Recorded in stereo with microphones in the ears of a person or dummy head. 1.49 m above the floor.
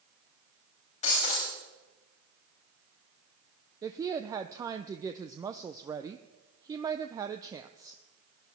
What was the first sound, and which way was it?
Breaking glass, 40° left (ahead or behind).